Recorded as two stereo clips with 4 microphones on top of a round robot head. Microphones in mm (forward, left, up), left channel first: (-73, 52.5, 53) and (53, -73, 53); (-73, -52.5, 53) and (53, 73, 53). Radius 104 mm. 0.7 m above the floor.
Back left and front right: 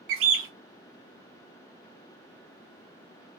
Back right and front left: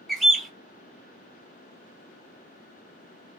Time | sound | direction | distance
0.1 | a bird | 45° right | 0.9 m